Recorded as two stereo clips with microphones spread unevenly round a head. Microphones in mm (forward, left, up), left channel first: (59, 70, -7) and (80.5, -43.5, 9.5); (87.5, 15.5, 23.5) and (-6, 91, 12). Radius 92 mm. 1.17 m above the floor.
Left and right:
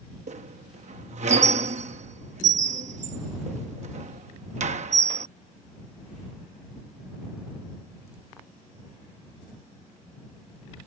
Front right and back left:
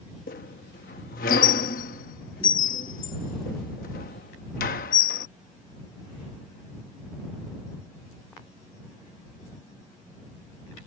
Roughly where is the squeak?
Ahead right.